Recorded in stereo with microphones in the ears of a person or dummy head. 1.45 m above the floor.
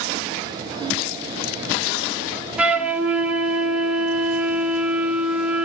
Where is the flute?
10° right (ahead or behind), 2 m.